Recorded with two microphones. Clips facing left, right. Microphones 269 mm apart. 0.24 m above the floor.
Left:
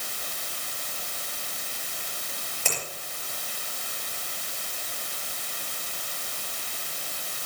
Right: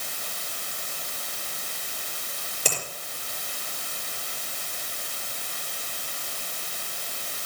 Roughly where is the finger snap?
Right.